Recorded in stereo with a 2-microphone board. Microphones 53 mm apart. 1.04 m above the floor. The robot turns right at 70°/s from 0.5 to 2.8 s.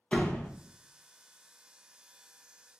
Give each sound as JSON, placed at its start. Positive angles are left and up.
{"t": 0.1, "sound": "a door slam", "side_deg": 20, "distance_m": 0.5}